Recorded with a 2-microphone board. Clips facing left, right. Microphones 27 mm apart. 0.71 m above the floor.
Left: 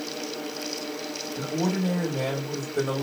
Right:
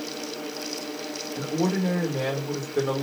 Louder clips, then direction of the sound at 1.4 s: Right 2 dB; 40° right (ahead or behind).